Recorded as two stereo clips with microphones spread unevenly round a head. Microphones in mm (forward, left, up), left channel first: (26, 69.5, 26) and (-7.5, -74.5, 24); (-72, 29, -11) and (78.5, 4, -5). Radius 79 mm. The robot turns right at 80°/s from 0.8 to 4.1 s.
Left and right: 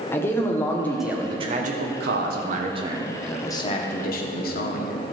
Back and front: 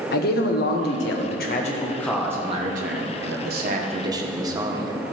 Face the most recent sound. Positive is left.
turn(degrees=55)